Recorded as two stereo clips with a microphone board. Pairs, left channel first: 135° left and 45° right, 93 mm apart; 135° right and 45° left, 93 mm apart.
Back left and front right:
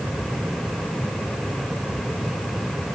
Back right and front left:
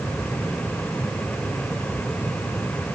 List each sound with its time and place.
Only background noise.